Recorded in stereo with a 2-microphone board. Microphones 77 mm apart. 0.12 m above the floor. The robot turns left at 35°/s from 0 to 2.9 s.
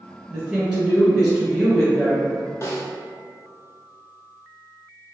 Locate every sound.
0.3 s a woman speaking: 10° right (ahead or behind), 1.5 m; by 2.2 s 10° left (ahead or behind), 1.5 m
2.6 s a snare drum: 40° left (ahead or behind), 0.7 m; by 2.9 s 35° left (ahead or behind), 0.7 m